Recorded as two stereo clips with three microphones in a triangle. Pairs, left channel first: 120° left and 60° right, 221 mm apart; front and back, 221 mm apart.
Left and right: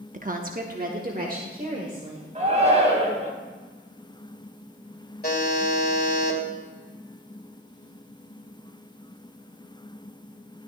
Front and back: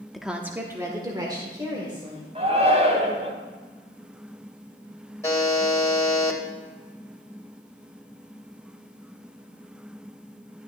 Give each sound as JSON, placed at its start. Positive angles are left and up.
{"t": 0.1, "sound": "a woman speaking", "azimuth_deg": -90, "distance_m": 0.7}
{"t": 2.4, "sound": "a shout", "azimuth_deg": -120, "distance_m": 3.5}
{"t": 5.2, "sound": "a buzzer", "azimuth_deg": 75, "distance_m": 2.0}